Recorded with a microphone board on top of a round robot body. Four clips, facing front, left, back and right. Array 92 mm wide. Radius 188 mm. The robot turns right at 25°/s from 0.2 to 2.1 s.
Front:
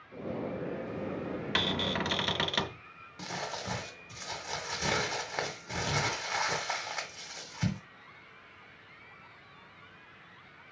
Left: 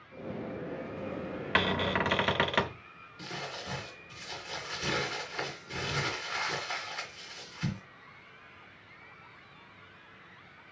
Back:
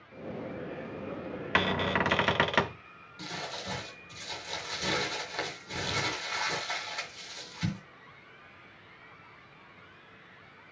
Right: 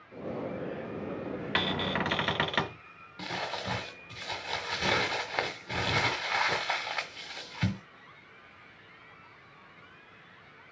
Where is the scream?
I don't hear a scream.